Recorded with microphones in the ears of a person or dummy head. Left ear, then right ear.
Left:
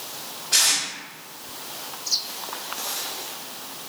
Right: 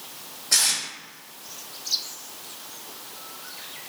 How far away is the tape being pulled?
About 1.1 m.